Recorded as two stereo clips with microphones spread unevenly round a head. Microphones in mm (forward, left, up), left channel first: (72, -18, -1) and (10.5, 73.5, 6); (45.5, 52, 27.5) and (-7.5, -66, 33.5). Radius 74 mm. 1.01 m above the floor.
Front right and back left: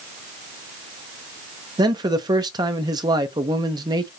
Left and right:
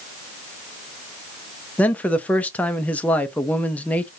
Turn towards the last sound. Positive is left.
turn(degrees=130)